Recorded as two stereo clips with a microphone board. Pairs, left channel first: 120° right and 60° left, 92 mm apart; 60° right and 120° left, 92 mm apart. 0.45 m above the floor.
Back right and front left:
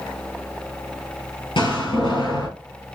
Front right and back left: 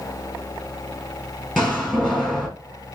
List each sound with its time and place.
1.6 s a door slam: 145° right, 2.5 m